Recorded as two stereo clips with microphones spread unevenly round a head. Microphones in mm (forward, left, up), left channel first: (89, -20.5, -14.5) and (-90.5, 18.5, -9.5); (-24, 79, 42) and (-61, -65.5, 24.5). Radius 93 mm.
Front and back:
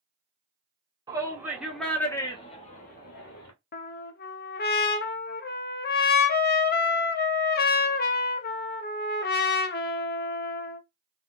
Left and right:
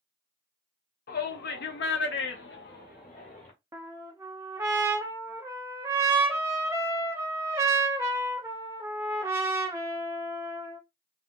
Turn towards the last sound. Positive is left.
turn(degrees=-25)